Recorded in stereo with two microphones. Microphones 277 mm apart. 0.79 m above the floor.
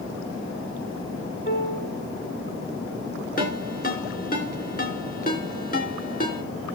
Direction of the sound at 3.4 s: 30° left (ahead or behind).